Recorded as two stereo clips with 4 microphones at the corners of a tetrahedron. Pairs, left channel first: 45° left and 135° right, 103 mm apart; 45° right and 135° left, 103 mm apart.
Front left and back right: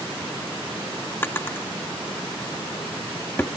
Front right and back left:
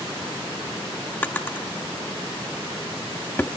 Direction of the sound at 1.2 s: 5° left.